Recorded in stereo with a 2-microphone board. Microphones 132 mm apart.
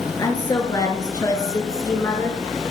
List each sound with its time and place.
0.2 s a woman speaking: 30° left (ahead or behind), 1.4 m; by 2.4 s 20° left (ahead or behind), 1.3 m